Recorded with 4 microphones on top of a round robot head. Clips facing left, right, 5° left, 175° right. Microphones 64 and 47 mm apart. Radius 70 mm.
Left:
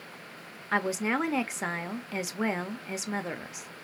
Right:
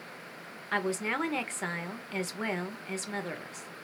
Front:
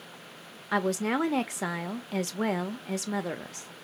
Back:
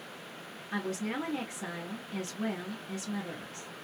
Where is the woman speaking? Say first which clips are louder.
Left 3 dB, front 7 dB; 10° left, 0.6 m.